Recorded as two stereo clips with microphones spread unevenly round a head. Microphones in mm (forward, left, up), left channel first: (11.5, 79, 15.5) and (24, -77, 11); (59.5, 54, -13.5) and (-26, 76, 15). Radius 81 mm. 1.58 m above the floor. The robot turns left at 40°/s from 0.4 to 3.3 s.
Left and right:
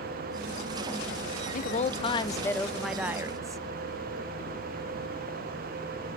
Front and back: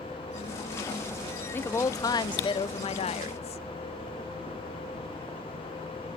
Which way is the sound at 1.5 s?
60° left.